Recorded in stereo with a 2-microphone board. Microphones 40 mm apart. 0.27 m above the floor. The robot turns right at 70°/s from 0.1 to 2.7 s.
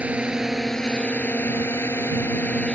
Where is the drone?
35° right; by 2.8 s 150° left.